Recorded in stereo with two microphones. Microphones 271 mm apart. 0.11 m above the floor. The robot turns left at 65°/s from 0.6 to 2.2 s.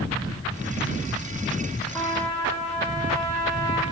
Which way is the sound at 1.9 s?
5° left (ahead or behind).